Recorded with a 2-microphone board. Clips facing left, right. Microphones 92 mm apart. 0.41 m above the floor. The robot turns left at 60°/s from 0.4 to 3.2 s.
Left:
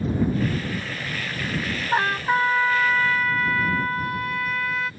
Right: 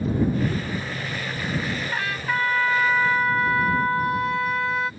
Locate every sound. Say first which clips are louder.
1.9 s a trumpet: left 8 dB; 55° left; by 4.9 s 20° right